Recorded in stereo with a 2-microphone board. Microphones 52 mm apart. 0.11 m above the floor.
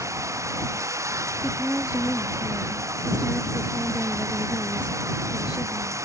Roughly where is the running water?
Right.